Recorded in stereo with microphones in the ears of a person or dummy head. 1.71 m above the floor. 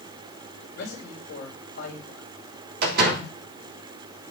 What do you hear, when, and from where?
0.8 s a man speaking: 70° left (ahead or behind), 3.5 m
2.8 s a door slam: 60° right (ahead or behind), 3 m